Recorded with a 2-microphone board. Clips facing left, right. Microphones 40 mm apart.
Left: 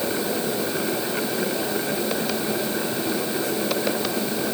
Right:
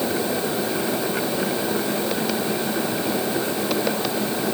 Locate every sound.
Only background noise.